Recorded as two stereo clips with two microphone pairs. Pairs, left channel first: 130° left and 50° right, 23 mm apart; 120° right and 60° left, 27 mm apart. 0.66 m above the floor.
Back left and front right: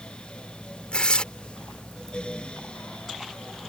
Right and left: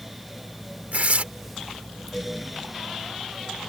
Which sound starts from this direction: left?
Tearing paper, at 0.9 s.